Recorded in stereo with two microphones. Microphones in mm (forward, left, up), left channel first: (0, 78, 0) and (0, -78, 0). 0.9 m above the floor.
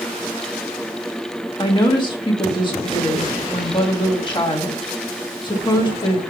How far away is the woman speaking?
About 1.2 m.